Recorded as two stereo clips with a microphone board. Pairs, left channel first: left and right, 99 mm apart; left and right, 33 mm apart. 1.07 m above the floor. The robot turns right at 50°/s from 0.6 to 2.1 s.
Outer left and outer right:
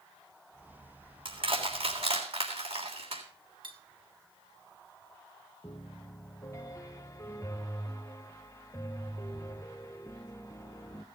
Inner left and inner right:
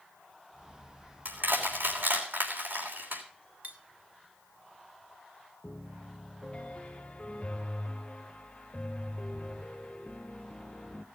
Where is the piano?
30° left (ahead or behind), 0.7 m.